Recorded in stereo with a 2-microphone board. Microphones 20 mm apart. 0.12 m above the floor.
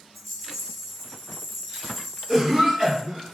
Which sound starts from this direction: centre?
A rattle, at 0.1 s.